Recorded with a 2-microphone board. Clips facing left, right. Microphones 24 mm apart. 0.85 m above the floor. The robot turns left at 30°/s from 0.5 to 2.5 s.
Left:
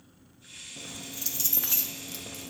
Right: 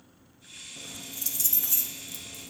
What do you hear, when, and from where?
0.8 s keys jangling: straight behind, 0.7 m; by 2.5 s 125° left, 0.7 m